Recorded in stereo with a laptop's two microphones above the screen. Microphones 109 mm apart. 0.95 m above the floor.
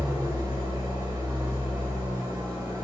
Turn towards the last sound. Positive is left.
turn(degrees=-40)  # may be behind; listen again after turning